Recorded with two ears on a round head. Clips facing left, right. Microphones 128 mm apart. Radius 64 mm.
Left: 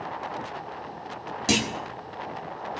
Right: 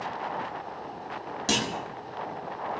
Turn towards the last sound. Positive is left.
turn(degrees=15)  # may be behind; listen again after turning